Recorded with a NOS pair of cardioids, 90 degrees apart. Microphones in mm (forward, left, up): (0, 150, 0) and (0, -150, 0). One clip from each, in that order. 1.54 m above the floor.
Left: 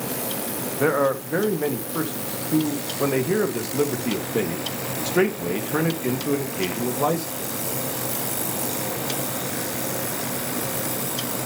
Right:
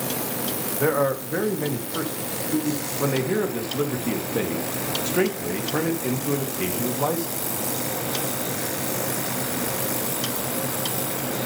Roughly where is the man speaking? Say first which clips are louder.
Left 2 dB; ahead.